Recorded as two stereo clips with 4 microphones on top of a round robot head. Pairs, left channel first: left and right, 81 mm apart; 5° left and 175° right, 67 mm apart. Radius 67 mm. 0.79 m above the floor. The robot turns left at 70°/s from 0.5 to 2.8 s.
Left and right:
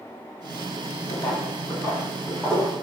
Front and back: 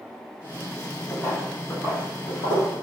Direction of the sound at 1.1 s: 65° left.